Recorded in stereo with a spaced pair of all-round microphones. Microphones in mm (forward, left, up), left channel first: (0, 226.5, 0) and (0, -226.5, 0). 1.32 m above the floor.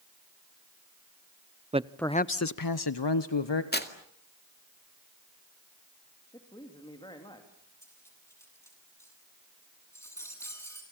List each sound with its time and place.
1.7 s a man speaking: 15° right (ahead or behind), 0.6 m; by 3.6 s 70° left (ahead or behind), 1.3 m
3.7 s tearing paper: 20° left (ahead or behind), 2 m
6.3 s a man speaking: 10° left (ahead or behind), 3 m
7.8 s cutlery clinking: 5° left (ahead or behind), 8.5 m